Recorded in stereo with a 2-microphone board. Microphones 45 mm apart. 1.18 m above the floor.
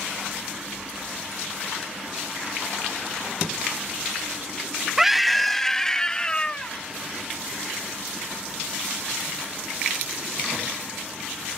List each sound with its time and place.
5.0 s a scream: 10° right (ahead or behind); by 6.7 s 20° left (ahead or behind)